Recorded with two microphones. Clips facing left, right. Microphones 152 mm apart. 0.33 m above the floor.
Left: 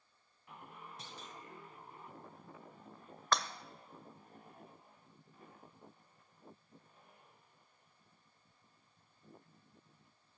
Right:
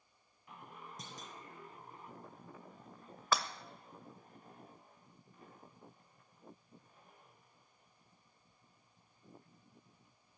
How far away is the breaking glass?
About 0.7 m.